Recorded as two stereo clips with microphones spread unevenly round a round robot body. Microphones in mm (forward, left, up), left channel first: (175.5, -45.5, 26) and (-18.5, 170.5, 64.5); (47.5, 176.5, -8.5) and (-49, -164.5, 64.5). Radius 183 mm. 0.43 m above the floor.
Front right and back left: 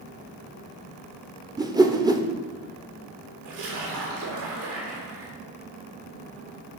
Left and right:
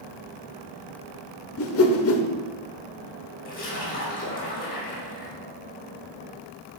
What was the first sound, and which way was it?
A whoosh, 50° left.